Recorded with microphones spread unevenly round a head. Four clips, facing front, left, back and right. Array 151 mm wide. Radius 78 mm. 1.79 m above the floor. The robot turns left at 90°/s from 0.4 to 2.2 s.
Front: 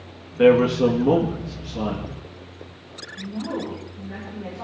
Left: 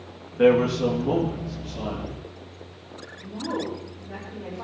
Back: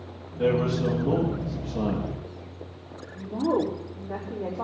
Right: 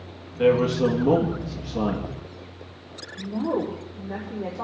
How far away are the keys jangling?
No keys jangling in this recording.